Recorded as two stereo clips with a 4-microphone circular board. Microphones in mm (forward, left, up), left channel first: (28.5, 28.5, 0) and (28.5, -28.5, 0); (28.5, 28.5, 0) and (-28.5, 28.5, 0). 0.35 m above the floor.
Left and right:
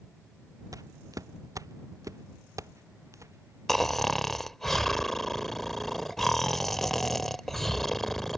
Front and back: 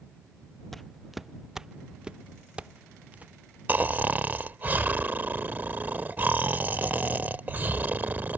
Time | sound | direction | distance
0.7 | footsteps | 85° right | ?
3.7 | snoring | 170° left | ?